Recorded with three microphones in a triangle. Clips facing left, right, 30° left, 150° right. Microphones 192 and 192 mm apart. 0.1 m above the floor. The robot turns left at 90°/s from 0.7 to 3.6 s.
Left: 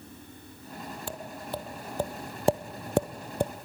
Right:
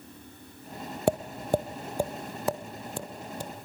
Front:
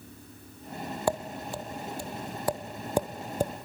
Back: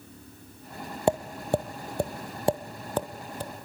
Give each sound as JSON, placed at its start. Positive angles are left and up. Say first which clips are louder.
{"t": 1.1, "sound": "tapping", "louder": "right 14 dB, back 6 dB", "azimuth_deg": -85, "distance_m": 1.3}